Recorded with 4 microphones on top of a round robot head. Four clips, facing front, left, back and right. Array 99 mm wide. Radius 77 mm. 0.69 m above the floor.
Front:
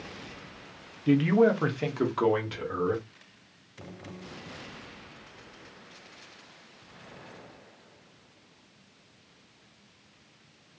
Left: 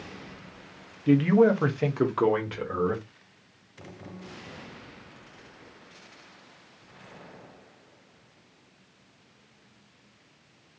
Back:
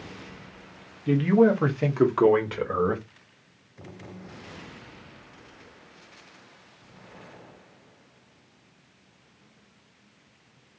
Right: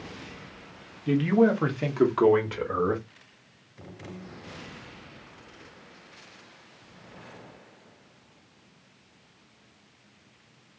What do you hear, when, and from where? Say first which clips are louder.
1.1 s a man speaking: left 2 dB, back 2 dB; 55° left, 1.0 m; by 3.0 s 170° right, 1.3 m